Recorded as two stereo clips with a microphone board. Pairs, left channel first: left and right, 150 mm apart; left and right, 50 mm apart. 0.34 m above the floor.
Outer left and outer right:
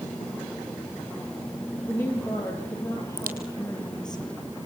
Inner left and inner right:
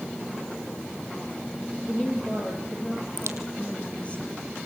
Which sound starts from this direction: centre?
A woman speaking, at 1.8 s.